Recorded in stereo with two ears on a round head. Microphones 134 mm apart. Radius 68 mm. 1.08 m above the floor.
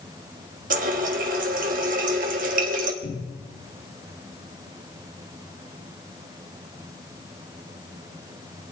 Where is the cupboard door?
80° left, 5 m.